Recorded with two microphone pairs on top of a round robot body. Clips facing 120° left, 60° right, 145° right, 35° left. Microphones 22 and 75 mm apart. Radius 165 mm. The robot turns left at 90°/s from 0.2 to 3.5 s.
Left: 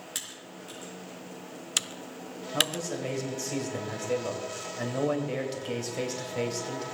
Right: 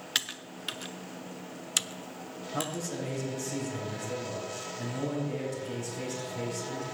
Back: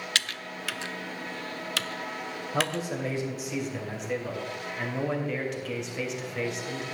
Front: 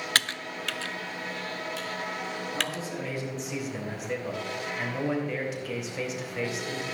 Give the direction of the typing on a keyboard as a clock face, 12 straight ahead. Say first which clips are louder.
Right 9 dB, front 4 dB; 1 o'clock.